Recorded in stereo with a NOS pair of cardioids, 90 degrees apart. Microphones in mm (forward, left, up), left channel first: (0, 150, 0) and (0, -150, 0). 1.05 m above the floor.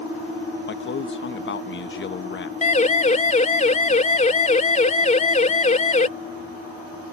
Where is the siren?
25° left.